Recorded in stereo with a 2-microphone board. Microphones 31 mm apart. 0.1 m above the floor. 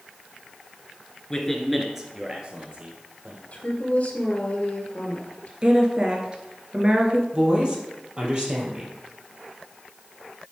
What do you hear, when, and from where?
1.3 s a man speaking: 20° left (ahead or behind), 1.4 m; by 3.4 s 40° right (ahead or behind), 3 m
3.5 s a woman speaking: 45° left (ahead or behind), 1.7 m
5.6 s a woman speaking: 30° right (ahead or behind), 1.6 m
7.3 s a woman speaking: 30° right (ahead or behind), 3.5 m